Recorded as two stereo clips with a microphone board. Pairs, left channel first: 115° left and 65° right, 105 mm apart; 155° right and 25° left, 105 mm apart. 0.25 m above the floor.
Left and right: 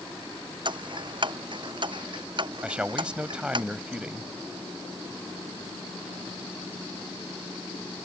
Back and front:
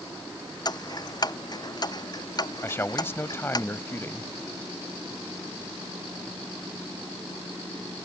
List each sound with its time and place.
0.7 s ticking: 105° right
2.6 s a man speaking: 135° right